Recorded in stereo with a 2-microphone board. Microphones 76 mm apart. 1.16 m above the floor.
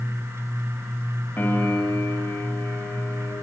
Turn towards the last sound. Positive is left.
turn(degrees=25)  # may be behind; listen again after turning